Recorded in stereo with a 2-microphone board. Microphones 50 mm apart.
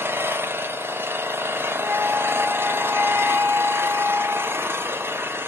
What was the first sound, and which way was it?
An engine running, 50° right (ahead or behind).